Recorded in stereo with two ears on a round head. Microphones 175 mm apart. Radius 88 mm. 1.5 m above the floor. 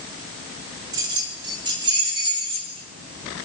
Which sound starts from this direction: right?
Keys jangling, at 0.9 s.